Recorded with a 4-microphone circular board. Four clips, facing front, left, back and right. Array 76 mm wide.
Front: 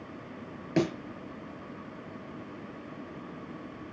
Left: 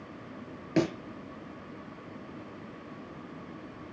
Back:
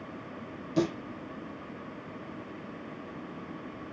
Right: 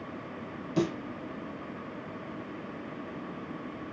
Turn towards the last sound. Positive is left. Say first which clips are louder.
# left 2 dB, front 1 dB
turn(degrees=45)